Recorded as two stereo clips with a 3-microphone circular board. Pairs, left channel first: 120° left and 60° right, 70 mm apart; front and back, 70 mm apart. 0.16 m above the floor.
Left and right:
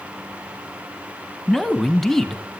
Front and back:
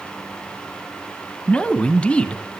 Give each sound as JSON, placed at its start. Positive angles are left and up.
{"t": 1.5, "sound": "a man speaking", "azimuth_deg": 35, "distance_m": 1.1}